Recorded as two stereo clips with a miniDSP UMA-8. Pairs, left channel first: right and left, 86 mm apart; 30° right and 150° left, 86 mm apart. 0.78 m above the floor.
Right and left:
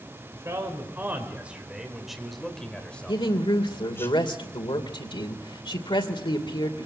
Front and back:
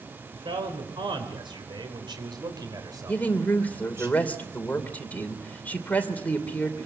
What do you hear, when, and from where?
0.3 s a man speaking: 145° left, 3.5 m; by 4.1 s 150° right, 4 m
3.1 s a woman speaking: 100° right, 2.5 m